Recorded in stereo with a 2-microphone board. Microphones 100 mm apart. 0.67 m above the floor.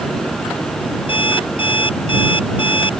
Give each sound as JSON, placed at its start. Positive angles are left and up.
{"t": 1.1, "sound": "an alarm clock", "side_deg": 55}